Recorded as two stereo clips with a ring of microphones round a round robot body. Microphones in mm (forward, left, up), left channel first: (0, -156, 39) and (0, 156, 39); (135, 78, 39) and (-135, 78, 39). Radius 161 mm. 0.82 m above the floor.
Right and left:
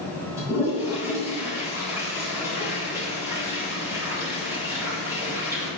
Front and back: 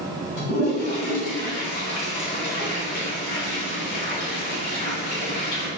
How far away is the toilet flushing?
About 3.5 m.